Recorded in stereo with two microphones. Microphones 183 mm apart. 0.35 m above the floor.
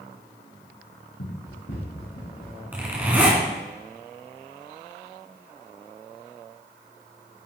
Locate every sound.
1.2 s running footsteps: 80° left, 3 m; by 2.6 s 55° left (ahead or behind), 4 m
2.7 s a zipper: 10° right (ahead or behind), 1.6 m